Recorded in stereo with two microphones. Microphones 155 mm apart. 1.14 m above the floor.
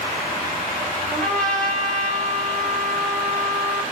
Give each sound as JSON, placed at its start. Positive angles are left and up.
{"t": 1.1, "sound": "a trumpet", "side_deg": 5, "distance_m": 0.8}